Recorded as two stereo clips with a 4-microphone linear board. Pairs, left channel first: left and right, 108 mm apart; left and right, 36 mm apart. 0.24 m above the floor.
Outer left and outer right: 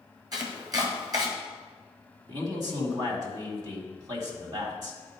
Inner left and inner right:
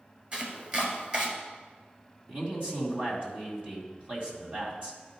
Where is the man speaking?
40° right (ahead or behind), 2.0 m.